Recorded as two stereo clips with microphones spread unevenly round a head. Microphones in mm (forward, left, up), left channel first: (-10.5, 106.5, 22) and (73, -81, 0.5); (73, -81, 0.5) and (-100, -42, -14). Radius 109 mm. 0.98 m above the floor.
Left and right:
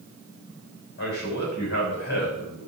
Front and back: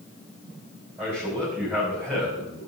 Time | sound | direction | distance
1.0 | a man speaking | 80° left | 5.5 m